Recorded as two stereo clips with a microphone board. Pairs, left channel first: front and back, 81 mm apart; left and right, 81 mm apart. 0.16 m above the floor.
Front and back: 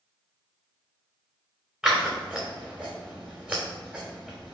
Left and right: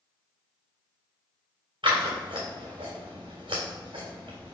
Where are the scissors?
100° right, 3 m.